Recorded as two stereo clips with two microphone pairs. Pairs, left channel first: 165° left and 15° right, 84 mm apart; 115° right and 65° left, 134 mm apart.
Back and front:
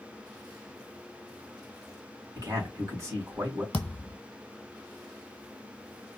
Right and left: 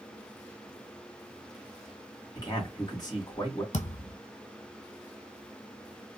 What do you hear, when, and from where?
2.4 s a man speaking: 60° right, 2.5 m
3.7 s a thud: 115° right, 1.0 m